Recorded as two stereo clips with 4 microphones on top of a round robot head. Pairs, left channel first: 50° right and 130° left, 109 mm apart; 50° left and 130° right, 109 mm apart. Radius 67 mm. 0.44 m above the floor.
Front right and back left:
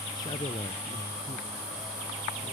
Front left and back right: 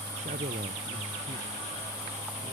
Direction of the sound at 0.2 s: 105° right.